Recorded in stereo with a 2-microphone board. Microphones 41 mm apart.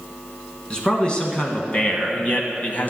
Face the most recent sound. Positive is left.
turn(degrees=45)  # may be behind; listen again after turning